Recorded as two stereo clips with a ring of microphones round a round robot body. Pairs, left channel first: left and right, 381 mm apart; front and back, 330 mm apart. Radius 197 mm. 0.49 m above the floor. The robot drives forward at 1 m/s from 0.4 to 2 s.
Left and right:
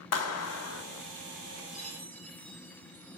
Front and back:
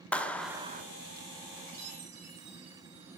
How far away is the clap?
About 0.8 m.